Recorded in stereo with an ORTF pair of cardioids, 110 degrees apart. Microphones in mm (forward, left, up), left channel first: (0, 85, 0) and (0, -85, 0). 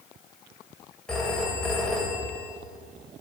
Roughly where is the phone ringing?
Ahead.